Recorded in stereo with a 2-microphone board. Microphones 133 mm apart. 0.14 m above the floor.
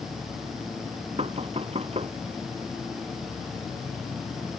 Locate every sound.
1.2 s knocking: 50° right (ahead or behind)